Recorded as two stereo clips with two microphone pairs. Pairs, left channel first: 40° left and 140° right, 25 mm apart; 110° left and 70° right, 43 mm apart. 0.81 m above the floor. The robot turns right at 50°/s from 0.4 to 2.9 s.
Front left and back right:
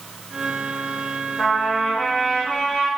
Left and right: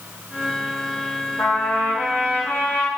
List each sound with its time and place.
1.4 s a trumpet: 90° left, 1.2 m; by 2.9 s 165° left, 1.2 m